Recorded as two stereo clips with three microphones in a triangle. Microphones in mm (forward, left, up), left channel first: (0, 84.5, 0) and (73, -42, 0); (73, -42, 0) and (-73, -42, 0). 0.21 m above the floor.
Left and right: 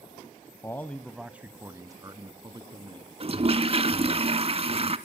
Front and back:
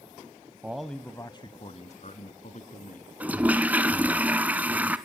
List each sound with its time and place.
0.6 s a man speaking: 120° left, 1.0 m; by 3.1 s 5° right, 2.5 m
3.2 s a toilet flushing: 100° right, 0.8 m